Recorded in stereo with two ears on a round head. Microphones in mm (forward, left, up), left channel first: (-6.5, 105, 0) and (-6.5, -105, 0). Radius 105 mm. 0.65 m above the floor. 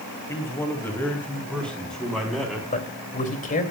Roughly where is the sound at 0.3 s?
Centre.